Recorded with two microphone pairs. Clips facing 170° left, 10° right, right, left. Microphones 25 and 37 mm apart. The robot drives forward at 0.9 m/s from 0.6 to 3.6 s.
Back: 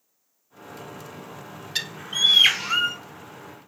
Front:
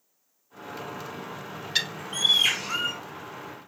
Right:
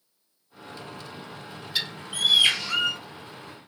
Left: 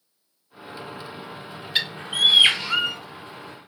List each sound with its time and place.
1.8 s a bird: 60° left, 0.6 m; by 3.0 s 155° left, 1.1 m